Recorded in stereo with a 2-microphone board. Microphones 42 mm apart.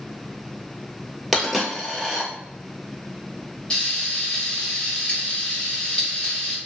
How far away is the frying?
About 1.6 m.